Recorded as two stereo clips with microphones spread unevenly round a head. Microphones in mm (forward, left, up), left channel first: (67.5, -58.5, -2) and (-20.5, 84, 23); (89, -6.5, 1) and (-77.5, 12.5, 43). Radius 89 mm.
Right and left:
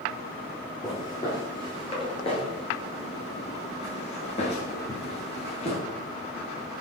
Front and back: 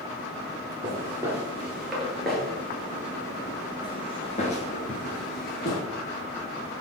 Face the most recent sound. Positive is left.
turn(degrees=-15)